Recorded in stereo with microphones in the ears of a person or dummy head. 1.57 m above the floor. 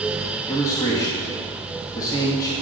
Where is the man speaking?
20° left (ahead or behind), 2 m.